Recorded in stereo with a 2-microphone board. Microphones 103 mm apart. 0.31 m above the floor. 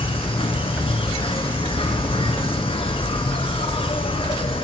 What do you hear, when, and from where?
0.0 s an insect: 65° left (ahead or behind), 0.8 m